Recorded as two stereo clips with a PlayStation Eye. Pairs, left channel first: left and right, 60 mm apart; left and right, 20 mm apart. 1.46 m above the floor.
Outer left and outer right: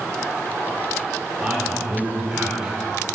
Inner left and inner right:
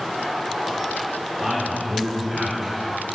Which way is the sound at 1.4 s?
10° right (ahead or behind).